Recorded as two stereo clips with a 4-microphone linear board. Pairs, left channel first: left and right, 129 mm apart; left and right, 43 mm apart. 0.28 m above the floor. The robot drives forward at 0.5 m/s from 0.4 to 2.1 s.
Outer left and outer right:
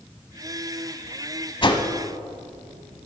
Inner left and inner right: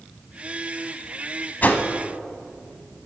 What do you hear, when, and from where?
1.6 s a whoosh: 40° left (ahead or behind), 0.8 m; by 1.9 s 35° left (ahead or behind), 0.9 m